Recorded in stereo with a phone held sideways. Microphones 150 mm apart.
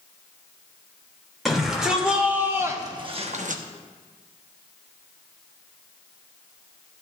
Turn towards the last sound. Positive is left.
turn(degrees=-70)  # may be behind; listen again after turning